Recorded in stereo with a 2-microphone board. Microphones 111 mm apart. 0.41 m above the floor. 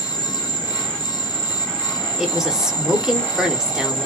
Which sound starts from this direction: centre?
A woman speaking, at 2.2 s.